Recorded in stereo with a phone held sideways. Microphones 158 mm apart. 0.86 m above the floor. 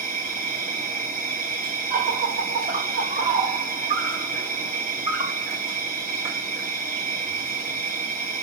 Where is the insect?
65° right (ahead or behind), 1.9 m.